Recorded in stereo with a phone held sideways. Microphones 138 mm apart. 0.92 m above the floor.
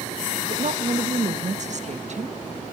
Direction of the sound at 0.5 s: 60° right (ahead or behind).